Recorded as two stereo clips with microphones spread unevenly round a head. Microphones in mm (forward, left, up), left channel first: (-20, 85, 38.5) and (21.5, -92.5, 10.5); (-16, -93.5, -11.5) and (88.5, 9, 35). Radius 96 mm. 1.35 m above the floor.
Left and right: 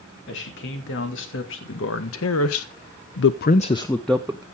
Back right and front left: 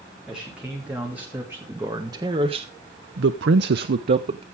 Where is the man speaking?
130° left, 3.5 m; by 4.4 s straight ahead, 1.2 m.